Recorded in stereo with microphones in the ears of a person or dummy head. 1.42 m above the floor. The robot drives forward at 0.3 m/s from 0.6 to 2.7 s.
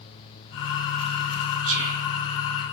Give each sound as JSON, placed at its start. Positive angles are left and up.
{"t": 1.6, "sound": "whispering", "side_deg": -75, "distance_m": 1.9}